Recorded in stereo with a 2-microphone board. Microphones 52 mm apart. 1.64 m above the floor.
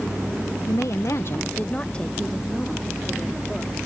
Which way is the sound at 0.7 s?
65° left (ahead or behind).